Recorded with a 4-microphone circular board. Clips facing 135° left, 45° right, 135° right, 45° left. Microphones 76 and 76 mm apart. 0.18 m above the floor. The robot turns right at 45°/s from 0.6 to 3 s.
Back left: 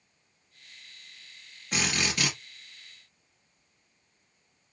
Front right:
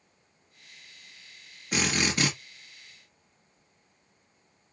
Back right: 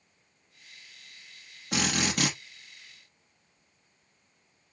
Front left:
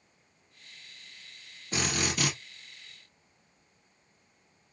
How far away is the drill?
About 2.5 m.